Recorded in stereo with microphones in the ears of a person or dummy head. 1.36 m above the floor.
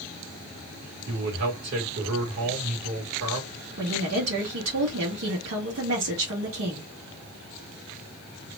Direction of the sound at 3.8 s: 80° right.